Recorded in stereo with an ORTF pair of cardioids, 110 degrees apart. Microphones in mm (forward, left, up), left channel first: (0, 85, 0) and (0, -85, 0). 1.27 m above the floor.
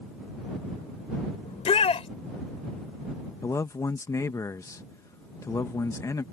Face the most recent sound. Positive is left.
turn(degrees=20)